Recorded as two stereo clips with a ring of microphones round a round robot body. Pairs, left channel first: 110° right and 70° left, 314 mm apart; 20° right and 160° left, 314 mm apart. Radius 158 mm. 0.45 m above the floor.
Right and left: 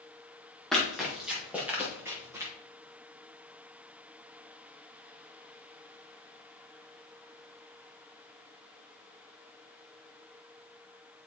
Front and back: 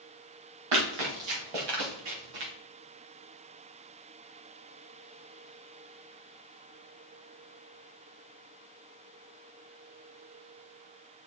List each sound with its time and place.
0.7 s running footsteps: 160° left, 4 m; by 2.5 s 150° left, 4.5 m